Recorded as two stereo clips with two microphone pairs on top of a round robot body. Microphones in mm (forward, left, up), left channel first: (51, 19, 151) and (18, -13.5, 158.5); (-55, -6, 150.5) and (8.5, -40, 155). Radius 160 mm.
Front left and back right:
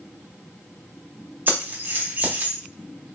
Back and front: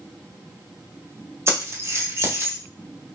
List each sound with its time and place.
1.5 s keys jangling: 80° right, 1.5 m